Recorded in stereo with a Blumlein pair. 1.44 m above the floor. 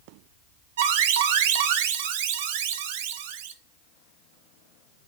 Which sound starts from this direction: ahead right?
An alarm, at 0.8 s.